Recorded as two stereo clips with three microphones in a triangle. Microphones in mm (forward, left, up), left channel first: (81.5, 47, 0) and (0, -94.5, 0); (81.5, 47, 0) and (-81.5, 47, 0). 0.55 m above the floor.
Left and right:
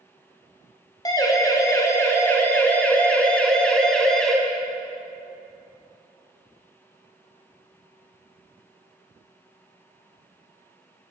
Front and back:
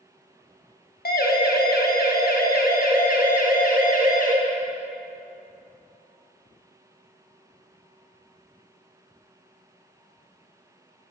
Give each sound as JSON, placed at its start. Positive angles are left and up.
{"t": 1.1, "sound": "a siren", "azimuth_deg": -5, "distance_m": 4.0}